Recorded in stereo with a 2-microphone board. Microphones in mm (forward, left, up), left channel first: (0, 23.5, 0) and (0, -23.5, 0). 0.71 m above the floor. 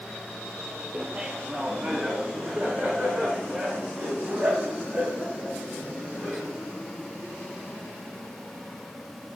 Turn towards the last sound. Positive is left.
turn(degrees=-35)  # may be behind; listen again after turning